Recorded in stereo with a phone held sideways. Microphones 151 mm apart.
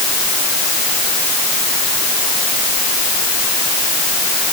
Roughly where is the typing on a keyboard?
No typing on a keyboard in this recording.